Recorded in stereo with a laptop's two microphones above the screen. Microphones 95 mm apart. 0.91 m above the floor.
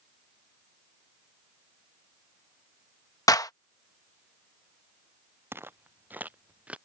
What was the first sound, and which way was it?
A clap, 40° left (ahead or behind).